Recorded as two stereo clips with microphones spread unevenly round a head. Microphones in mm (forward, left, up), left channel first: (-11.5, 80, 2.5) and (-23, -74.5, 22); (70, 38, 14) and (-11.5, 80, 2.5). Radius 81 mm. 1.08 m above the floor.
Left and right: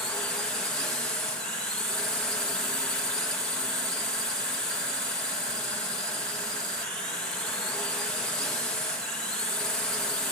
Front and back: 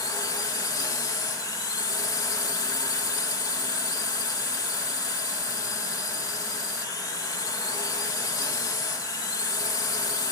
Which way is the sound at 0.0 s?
5° left.